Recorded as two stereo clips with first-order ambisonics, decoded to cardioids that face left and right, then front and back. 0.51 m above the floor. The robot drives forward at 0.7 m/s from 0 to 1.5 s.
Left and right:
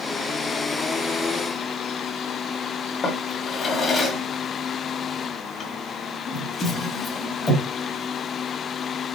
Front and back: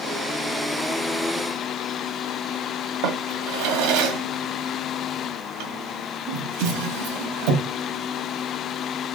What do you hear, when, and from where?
3.0 s a drawer: 165° left, 2.0 m